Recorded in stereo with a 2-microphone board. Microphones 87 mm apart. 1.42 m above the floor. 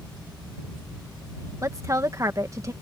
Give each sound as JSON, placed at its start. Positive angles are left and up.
{"t": 1.6, "sound": "a woman speaking", "side_deg": -35}